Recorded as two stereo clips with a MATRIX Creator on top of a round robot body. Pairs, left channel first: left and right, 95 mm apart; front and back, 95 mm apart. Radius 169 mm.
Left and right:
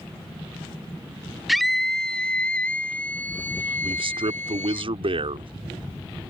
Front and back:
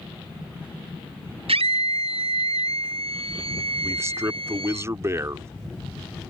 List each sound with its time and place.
1.5 s a scream: straight behind; by 4.8 s 160° left
3.8 s a man speaking: 120° right